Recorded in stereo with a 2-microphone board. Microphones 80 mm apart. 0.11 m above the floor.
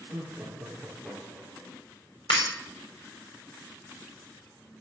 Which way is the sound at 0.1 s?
20° right (ahead or behind).